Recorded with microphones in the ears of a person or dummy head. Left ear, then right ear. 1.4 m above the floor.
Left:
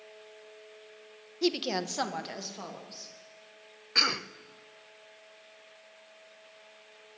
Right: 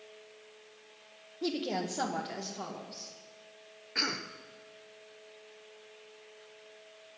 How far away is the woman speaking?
About 1.1 m.